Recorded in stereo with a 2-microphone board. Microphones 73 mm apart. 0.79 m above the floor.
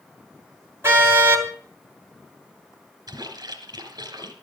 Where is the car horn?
35° right (ahead or behind), 3 m.